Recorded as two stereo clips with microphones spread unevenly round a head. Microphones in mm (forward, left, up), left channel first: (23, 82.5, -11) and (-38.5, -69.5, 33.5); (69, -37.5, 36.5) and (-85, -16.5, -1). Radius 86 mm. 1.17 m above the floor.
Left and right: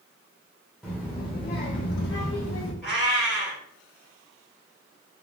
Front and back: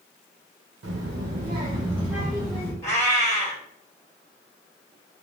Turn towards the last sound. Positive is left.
turn(degrees=-45)